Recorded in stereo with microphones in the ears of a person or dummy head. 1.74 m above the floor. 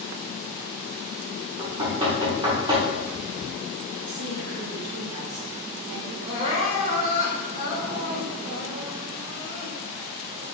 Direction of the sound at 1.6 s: 20° right (ahead or behind).